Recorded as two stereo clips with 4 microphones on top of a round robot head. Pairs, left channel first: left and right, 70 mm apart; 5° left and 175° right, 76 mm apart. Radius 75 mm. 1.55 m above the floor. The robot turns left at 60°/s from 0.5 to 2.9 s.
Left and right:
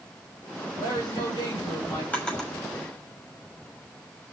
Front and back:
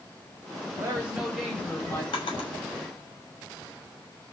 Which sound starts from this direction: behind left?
A woman speaking, at 0.7 s.